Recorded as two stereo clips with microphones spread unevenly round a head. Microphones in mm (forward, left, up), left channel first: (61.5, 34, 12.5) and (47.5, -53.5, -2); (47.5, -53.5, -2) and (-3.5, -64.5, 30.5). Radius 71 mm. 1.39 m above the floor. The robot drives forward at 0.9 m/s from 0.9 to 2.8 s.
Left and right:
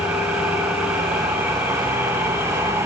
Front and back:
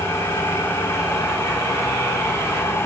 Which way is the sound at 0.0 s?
25° right.